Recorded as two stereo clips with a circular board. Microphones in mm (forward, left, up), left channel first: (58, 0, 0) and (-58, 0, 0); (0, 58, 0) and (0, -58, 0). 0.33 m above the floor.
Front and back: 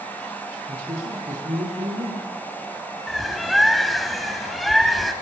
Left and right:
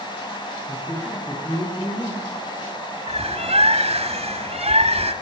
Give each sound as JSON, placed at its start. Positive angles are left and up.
{"t": 0.7, "sound": "a man speaking", "azimuth_deg": 160, "distance_m": 9.0}
{"t": 3.1, "sound": "a bird", "azimuth_deg": -90, "distance_m": 1.9}